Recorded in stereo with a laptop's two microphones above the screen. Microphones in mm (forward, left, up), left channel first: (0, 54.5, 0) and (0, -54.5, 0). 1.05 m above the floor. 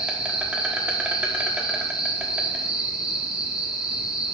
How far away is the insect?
About 1.3 m.